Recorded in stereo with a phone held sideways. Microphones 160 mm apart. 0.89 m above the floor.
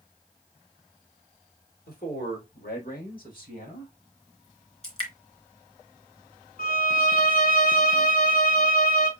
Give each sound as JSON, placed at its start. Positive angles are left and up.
{"t": 1.9, "sound": "a man speaking", "side_deg": 75, "distance_m": 4.0}
{"t": 4.8, "sound": "dripping", "side_deg": 40, "distance_m": 2.5}
{"t": 6.6, "sound": "a violin", "side_deg": 70, "distance_m": 1.6}